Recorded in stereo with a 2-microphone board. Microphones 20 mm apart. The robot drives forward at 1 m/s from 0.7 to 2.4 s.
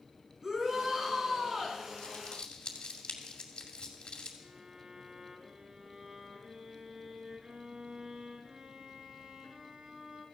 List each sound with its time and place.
0.4 s a shout: 25° right (ahead or behind), 4.5 m; by 1.8 s 30° right (ahead or behind), 3.5 m
2.0 s crumpling: 55° left (ahead or behind), 2.5 m; by 4.3 s 50° left (ahead or behind), 2.5 m
4.4 s a violin: 40° right (ahead or behind), 2.5 m